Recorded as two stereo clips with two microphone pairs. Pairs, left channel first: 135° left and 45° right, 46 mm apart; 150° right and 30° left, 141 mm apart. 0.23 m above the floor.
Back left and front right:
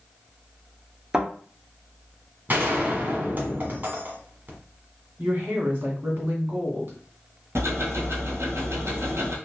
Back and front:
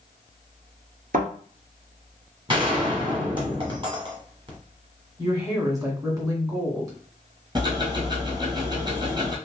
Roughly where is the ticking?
Ahead right.